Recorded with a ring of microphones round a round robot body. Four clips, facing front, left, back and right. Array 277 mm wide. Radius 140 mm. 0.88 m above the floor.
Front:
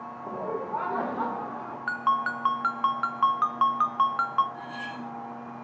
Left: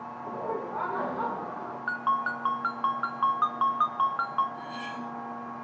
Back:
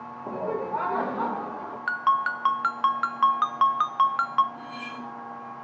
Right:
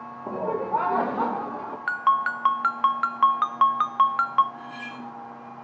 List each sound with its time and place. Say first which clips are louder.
0.3 s laughter: right 7 dB, back 3 dB; 110° right, 0.8 m; by 1.8 s 90° right, 1.8 m
1.9 s a ringtone: right 6 dB, back 2 dB; 100° right, 0.7 m
4.5 s cutlery clinking: left 1 dB, even; 10° right, 4 m